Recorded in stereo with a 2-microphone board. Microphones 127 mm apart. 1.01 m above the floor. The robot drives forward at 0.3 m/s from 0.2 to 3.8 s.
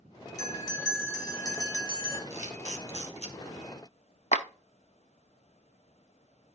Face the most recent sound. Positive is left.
turn(degrees=70)  # may be behind; listen again after turning